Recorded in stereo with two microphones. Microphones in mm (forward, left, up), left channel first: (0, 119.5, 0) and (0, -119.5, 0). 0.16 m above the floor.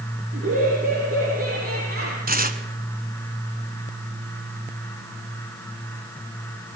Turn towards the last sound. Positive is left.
turn(degrees=-40)  # may be behind; listen again after turning